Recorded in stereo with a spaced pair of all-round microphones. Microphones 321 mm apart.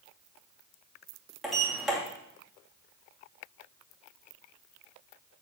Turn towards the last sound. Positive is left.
turn(degrees=0)  # may be behind; listen again after turning